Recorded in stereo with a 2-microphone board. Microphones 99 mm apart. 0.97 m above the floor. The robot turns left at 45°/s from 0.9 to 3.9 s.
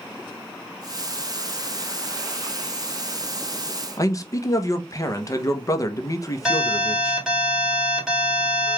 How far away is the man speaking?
About 0.7 m.